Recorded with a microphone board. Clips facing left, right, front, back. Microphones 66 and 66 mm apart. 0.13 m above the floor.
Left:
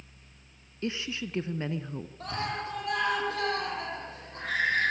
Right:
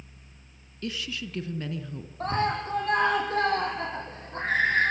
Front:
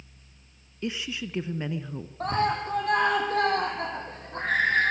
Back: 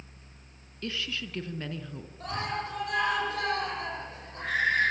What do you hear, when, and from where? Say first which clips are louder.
0.8 s a woman speaking: left 1 dB, front 3 dB; 50° left, 1.3 m
2.2 s a scream: right 7 dB, front 7 dB; 40° right, 7.5 m